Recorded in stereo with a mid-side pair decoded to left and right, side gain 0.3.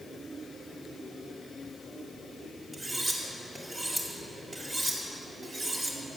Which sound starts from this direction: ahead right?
Cutlery clinking, at 2.7 s.